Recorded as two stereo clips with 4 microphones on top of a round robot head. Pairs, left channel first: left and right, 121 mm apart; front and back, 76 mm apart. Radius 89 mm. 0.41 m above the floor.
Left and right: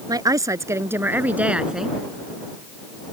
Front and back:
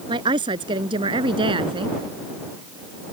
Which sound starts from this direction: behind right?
A woman speaking, at 0.1 s.